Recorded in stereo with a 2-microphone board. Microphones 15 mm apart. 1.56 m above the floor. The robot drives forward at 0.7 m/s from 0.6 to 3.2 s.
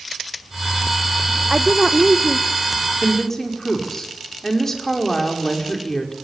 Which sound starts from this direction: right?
A woman speaking, at 1.5 s.